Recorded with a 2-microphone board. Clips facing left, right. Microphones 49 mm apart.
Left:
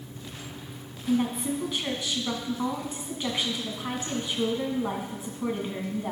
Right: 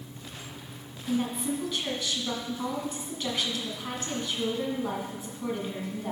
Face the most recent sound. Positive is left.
turn(degrees=20)  # may be behind; listen again after turning